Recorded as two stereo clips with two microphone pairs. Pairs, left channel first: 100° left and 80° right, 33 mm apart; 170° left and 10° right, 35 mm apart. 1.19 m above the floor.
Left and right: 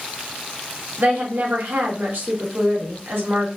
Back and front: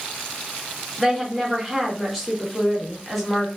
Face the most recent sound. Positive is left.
turn(degrees=-100)